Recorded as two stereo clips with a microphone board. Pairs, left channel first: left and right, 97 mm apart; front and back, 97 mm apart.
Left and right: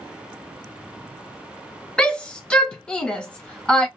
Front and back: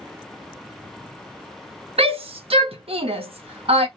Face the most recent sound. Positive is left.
turn(degrees=170)